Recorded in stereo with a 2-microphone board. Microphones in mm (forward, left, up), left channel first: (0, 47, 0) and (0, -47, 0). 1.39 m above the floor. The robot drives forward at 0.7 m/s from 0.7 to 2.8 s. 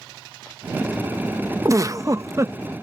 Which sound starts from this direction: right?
A giggle, at 1.6 s.